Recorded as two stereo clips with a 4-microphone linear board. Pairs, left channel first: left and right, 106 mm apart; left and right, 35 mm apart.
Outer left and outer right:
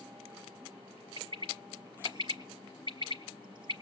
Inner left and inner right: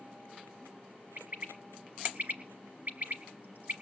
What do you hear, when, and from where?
1.2 s a bird: 50° right (ahead or behind), 1.6 m